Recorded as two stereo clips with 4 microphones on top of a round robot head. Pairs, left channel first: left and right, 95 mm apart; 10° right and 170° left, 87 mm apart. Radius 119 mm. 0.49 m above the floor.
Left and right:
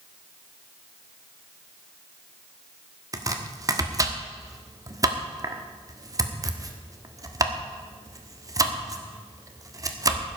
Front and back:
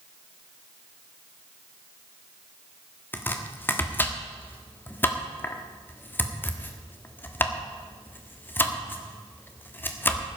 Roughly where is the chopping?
Ahead right.